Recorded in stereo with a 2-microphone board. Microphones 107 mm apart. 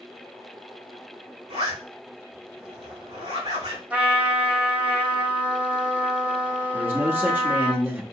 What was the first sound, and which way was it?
A zipper, 90° right.